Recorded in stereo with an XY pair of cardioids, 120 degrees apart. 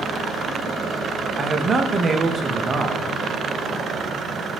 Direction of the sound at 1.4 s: 35° right.